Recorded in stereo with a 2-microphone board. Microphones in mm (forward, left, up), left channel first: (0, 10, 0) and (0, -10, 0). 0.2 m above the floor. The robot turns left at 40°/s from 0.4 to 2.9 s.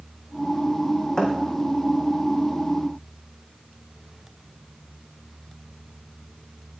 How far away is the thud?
About 3.5 m.